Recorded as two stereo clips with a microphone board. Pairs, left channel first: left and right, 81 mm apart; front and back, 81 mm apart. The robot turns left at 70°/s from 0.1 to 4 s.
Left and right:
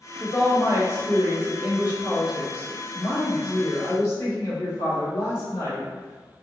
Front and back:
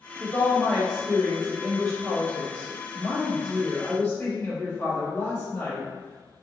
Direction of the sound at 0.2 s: 45° right.